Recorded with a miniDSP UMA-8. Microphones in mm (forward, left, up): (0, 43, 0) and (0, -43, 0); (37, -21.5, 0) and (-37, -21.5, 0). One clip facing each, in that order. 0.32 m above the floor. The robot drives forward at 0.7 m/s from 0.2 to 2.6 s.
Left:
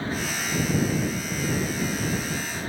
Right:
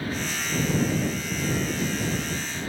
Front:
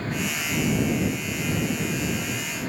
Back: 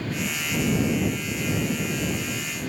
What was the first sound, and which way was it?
Only background noise.